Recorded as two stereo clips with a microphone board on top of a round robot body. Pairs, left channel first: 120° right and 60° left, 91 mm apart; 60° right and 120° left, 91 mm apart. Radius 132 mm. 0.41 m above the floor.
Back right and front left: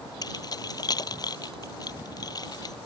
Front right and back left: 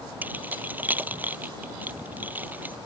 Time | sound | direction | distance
0.2 | keys jangling | 170° right | ?